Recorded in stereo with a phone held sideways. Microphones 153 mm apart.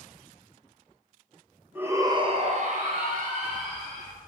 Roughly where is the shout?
Centre.